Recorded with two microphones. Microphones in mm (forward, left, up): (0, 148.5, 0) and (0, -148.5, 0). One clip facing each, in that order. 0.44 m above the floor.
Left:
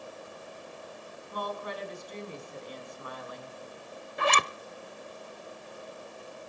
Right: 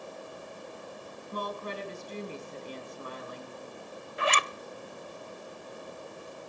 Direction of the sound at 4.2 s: 50° left (ahead or behind).